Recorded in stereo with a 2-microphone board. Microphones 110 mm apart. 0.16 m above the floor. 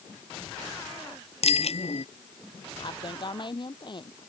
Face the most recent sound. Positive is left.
turn(degrees=45)  # may be behind; listen again after turning